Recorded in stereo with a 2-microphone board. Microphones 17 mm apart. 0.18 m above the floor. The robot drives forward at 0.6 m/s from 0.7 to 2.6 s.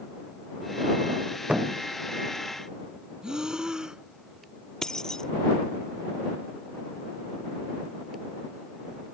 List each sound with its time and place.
1.5 s a thud: 85° right
3.2 s breathing: 50° right (ahead or behind)
4.8 s keys jangling: 40° left (ahead or behind)